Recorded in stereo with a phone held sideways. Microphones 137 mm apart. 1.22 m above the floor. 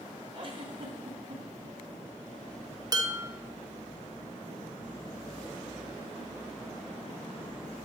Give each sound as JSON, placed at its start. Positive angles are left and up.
{"t": 0.3, "sound": "a giggle", "side_deg": -45, "distance_m": 2.0}
{"t": 2.9, "sound": "dishes clattering", "side_deg": -30, "distance_m": 0.9}